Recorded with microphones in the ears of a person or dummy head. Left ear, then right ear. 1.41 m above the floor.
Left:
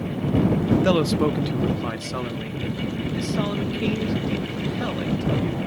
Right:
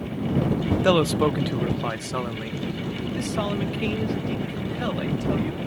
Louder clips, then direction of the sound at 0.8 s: Right 3 dB; 20° right (ahead or behind).